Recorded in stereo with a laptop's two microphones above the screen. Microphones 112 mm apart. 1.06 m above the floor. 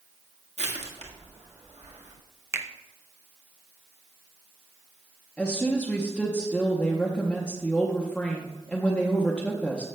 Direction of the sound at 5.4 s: 10° left (ahead or behind).